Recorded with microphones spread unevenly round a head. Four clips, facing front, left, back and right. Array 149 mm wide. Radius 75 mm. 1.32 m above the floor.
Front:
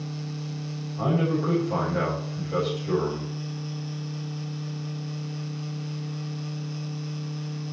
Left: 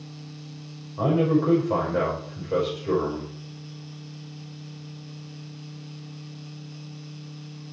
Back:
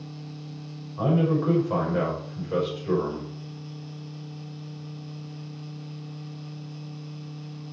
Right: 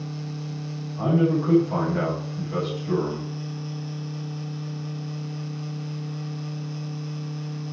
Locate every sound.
1.0 s a man speaking: 105° left, 5.5 m